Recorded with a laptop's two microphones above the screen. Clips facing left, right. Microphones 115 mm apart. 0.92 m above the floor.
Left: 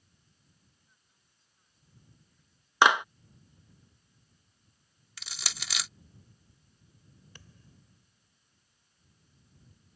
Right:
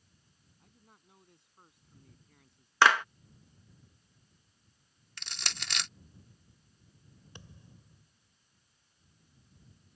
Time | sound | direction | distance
0.6 | a man speaking | 80° right | ?
2.8 | a clap | 20° left (ahead or behind) | ?
5.2 | crushing | 5° left (ahead or behind) | ?
7.3 | a thud | 25° right (ahead or behind) | ?